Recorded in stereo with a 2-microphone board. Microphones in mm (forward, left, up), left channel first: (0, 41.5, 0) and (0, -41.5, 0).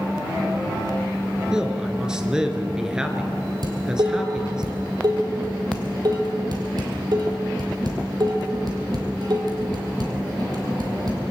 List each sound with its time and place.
1.5 s a man speaking: 10° right (ahead or behind), 1.9 m
3.6 s dishes clattering: 55° right (ahead or behind), 3 m